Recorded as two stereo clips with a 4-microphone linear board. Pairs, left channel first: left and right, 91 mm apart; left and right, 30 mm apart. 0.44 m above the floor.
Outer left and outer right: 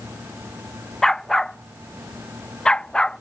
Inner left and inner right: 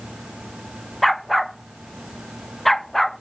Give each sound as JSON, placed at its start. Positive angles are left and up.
{"t": 1.0, "sound": "a dog barking", "side_deg": 5}